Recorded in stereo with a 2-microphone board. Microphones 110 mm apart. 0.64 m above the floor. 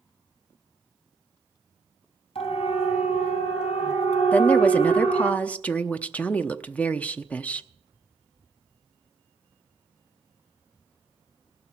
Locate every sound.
2.4 s a siren: 65° left (ahead or behind), 4 m; by 5.3 s 85° left, 5 m
4.3 s a woman speaking: 15° left (ahead or behind), 0.7 m